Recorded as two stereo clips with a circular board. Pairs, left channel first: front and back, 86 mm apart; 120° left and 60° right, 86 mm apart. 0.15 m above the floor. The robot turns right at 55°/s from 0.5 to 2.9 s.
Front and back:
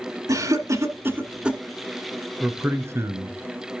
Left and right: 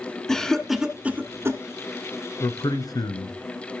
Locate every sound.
0.3 s a cough: 160° right, 1.3 m; by 1.6 s 100° right, 1.3 m
2.4 s a man speaking: 105° left, 1.6 m; by 3.4 s 135° left, 1.6 m